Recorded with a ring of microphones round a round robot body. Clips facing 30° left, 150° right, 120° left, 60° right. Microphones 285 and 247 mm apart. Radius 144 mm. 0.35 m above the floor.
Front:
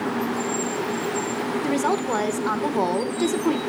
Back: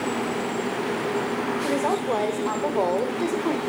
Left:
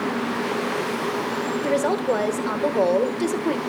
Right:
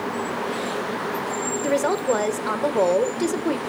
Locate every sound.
1.6 s a woman speaking: 25° left, 1.0 m